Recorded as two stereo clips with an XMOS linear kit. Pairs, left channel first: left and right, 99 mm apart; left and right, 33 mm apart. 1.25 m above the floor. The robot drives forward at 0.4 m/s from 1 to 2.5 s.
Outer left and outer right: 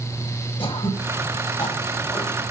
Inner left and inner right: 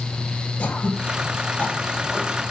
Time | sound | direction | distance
0.6 | throat clearing | 55° left (ahead or behind) | 5.5 m